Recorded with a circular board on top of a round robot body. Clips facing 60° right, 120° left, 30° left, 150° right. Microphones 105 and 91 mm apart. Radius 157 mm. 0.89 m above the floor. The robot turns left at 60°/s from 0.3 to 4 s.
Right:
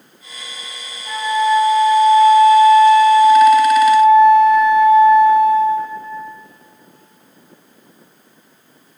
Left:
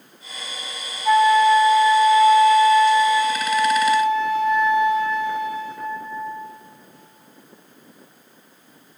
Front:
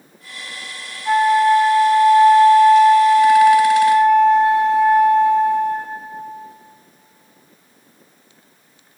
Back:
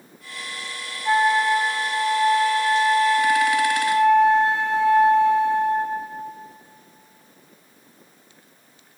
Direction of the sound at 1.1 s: 135° left.